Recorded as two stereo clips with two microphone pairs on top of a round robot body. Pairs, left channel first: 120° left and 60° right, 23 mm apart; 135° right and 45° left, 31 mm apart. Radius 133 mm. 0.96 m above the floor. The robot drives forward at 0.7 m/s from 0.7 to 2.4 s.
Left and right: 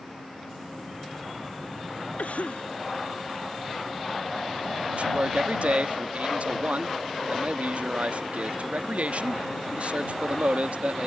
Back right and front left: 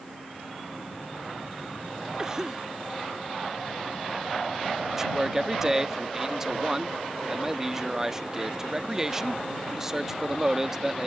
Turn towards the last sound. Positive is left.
turn(degrees=-30)